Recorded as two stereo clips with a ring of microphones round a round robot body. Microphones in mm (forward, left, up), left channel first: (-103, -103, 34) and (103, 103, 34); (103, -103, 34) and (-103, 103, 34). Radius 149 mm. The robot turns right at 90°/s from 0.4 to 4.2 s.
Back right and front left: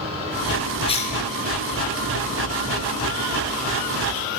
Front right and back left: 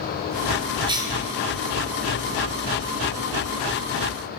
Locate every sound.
0.9 s a cough: 175° right, 0.8 m; by 1.2 s 150° right, 0.8 m